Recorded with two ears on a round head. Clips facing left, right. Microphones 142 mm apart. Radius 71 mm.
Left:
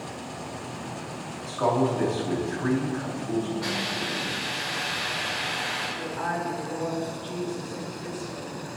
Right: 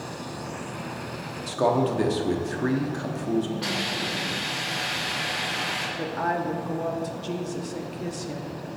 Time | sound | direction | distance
1.5 | a man speaking | 35° right (ahead or behind) | 0.8 m
3.6 | a hiss | 25° right (ahead or behind) | 1.9 m
6.0 | a woman speaking | 50° right (ahead or behind) | 0.8 m